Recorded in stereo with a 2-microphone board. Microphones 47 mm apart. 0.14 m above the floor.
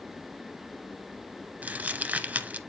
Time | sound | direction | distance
1.6 | crumpling | 35° right (ahead or behind) | 1.1 m